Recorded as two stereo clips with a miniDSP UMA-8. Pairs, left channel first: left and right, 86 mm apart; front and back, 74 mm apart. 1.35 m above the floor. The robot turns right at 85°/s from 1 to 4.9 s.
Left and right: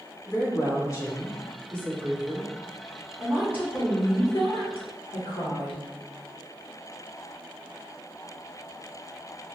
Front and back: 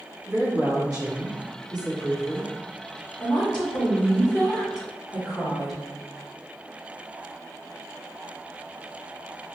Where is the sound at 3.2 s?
45° right, 1.5 m; by 5.8 s 95° left, 1.5 m.